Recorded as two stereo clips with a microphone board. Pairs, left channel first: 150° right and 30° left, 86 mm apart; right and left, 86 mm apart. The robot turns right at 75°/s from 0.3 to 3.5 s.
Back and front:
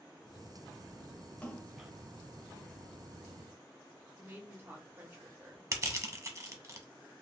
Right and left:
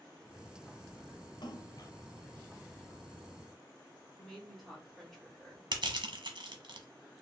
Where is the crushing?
75° left, 0.7 m.